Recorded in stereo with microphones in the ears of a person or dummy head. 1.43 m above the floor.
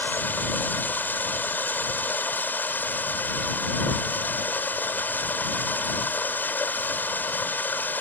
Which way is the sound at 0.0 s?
5° left (ahead or behind).